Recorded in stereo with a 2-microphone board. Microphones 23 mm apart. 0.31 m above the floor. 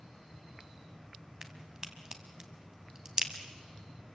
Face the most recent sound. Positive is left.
turn(degrees=-30)  # may be behind; listen again after turning